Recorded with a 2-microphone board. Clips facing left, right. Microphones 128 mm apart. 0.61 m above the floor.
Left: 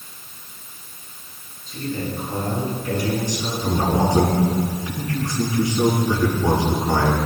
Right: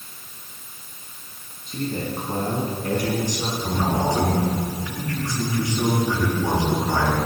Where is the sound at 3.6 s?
25° left (ahead or behind), 5.5 m.